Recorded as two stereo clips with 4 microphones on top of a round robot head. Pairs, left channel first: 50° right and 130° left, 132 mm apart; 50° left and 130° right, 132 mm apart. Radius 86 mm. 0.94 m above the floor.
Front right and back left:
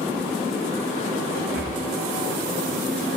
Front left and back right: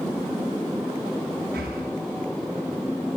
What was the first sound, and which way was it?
Breathing, 150° right.